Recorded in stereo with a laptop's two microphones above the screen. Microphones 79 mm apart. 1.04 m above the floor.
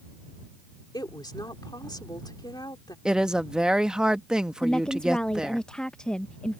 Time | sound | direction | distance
0.9 | a woman speaking | 65° left (ahead or behind) | ?
3.0 | a woman speaking | 10° right (ahead or behind) | ?
4.6 | a woman speaking | 10° left (ahead or behind) | ?